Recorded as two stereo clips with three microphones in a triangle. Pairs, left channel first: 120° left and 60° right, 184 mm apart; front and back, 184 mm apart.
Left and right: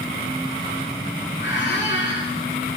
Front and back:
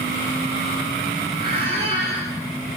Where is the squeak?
140° left, 3 m.